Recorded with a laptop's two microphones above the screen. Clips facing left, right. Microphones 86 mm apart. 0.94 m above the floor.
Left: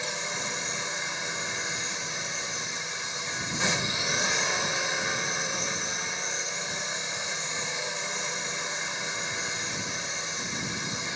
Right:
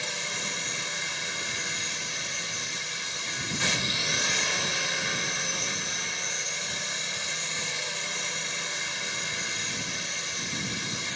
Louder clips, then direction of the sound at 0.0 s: Left 2 dB; 15° left (ahead or behind).